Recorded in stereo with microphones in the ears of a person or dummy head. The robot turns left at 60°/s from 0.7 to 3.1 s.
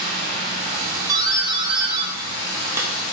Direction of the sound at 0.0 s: 145° right.